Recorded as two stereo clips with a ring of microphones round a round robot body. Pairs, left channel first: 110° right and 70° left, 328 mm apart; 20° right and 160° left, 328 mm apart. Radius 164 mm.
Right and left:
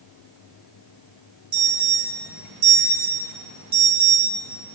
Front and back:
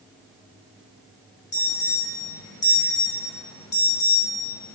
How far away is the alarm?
About 2.5 m.